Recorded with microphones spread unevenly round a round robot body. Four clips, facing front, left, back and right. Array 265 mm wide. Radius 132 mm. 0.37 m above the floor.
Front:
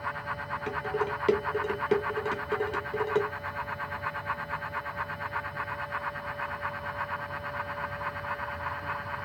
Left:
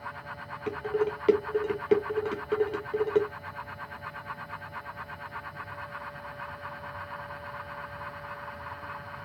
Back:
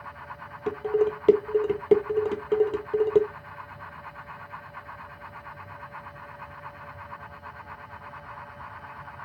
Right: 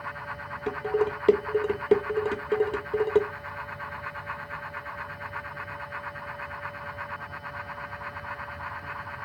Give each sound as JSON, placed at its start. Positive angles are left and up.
{"t": 0.7, "sound": "dishes clattering", "azimuth_deg": -140, "distance_m": 0.7}